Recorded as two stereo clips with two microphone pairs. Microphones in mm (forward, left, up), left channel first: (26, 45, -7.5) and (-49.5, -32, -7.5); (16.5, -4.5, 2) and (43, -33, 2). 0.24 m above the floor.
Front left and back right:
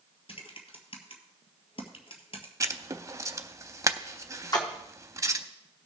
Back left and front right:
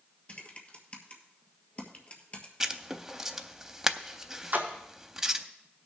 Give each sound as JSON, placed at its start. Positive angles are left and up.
{"t": 0.3, "sound": "typing on a keyboard", "azimuth_deg": 75, "distance_m": 1.4}
{"t": 2.6, "sound": "writing", "azimuth_deg": -105, "distance_m": 0.5}
{"t": 4.5, "sound": "a splash", "azimuth_deg": -5, "distance_m": 1.7}